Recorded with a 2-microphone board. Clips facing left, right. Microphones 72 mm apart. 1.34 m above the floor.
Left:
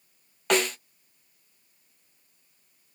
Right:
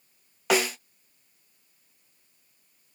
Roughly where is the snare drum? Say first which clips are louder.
Even; centre.